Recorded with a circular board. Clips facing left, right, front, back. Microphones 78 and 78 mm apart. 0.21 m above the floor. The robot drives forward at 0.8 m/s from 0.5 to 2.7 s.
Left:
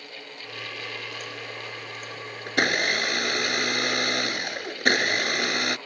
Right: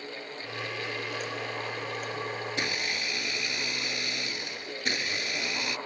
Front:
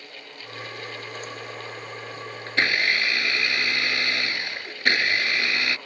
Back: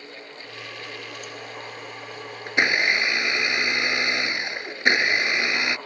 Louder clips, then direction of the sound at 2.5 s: Left 8 dB, back 2 dB; 105° left.